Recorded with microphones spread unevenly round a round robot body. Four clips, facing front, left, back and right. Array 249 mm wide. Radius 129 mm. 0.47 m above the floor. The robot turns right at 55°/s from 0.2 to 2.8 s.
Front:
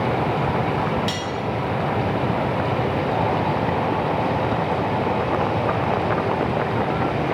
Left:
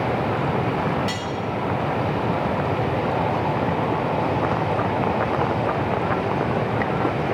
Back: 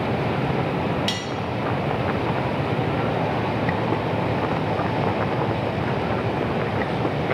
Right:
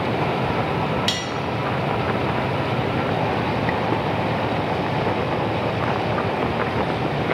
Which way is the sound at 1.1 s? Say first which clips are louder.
Right 1 dB, front 2 dB; 135° right.